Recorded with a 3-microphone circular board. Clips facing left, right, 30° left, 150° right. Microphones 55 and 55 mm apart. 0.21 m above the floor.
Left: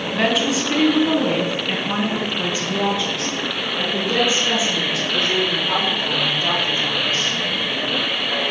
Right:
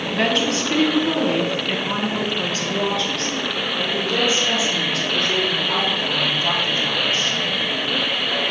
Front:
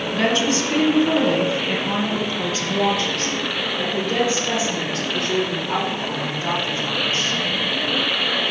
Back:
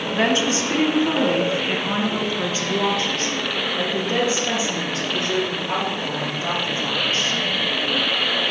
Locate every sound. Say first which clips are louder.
0.1 s a woman speaking: left 1 dB, even; 175° left, 1.2 m; by 7.4 s 150° left, 4.5 m